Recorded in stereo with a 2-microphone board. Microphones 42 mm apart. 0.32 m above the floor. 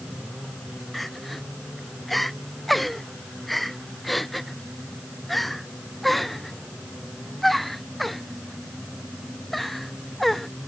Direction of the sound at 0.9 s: Centre (ahead or behind).